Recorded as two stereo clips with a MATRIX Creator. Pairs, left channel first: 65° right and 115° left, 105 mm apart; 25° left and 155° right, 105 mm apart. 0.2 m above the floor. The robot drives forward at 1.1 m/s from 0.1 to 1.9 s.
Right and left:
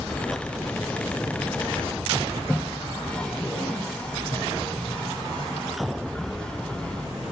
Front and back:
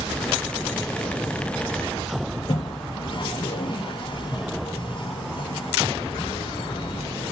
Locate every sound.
2.4 s a toilet flushing: 15° left, 0.6 m